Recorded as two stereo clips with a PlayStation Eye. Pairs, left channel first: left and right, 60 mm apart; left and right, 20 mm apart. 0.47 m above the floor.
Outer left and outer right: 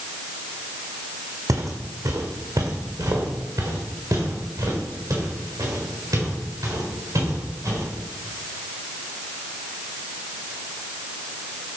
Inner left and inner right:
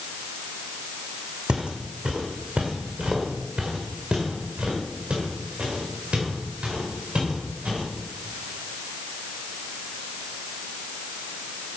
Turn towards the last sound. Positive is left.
turn(degrees=-70)  # may be behind; listen again after turning